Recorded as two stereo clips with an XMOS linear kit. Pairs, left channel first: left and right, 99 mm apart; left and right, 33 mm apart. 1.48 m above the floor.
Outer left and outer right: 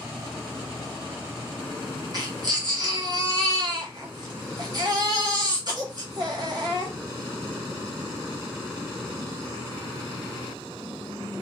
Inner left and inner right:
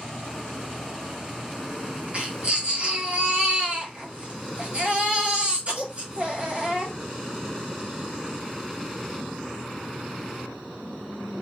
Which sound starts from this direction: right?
A baby crying, at 2.1 s.